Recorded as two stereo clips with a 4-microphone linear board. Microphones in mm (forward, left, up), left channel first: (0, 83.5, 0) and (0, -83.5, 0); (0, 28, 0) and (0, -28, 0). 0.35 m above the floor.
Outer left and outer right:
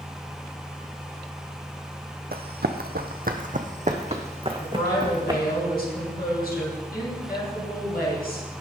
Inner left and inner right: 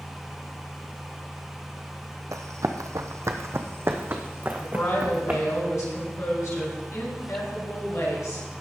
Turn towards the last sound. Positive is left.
turn(degrees=65)  # may be behind; listen again after turning